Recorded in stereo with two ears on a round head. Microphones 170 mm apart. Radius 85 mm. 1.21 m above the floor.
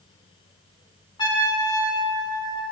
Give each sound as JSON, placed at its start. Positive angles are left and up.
{"t": 1.2, "sound": "a trumpet", "side_deg": 25, "distance_m": 7.5}